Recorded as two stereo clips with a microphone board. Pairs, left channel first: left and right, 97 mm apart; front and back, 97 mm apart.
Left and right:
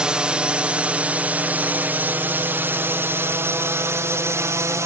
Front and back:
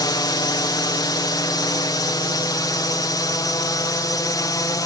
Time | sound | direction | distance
0.0 | a drone | 15° right | ?